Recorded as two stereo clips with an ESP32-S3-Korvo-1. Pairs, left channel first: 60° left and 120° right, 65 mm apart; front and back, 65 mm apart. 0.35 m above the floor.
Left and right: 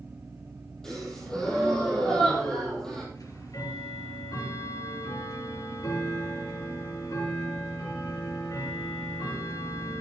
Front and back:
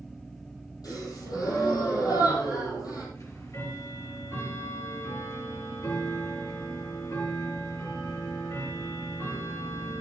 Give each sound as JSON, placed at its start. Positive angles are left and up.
{"t": 0.8, "sound": "a gasp", "azimuth_deg": -20, "distance_m": 5.5}
{"t": 3.1, "sound": "ticking", "azimuth_deg": 35, "distance_m": 3.5}